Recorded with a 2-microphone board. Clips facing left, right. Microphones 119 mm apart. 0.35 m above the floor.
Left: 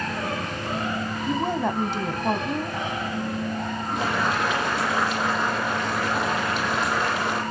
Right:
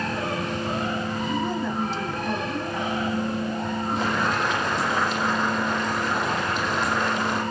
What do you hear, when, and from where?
1.3 s a woman speaking: 60° left (ahead or behind), 2.5 m
4.0 s boiling: 10° left (ahead or behind), 9 m